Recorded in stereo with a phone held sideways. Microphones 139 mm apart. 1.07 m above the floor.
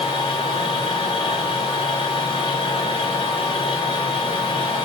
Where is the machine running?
35° left (ahead or behind), 1.1 m.